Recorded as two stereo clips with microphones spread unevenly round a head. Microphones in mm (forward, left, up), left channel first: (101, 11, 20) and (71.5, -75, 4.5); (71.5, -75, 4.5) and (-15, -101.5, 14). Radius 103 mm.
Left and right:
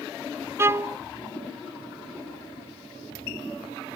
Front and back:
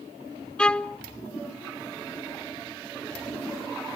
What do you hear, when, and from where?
0.6 s a violin: 60° right, 0.5 m